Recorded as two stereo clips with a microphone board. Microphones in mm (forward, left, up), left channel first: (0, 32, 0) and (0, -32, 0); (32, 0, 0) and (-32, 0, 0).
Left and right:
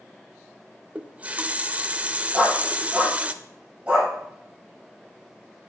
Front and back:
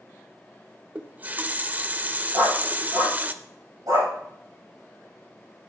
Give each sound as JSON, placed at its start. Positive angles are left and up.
{"t": 0.9, "sound": "a running tap", "azimuth_deg": -140, "distance_m": 0.6}
{"t": 2.3, "sound": "a dog barking", "azimuth_deg": -165, "distance_m": 6.5}